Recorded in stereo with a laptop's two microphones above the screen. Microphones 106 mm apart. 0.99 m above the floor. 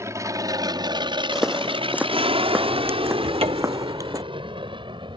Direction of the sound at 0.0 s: 30° right (ahead or behind).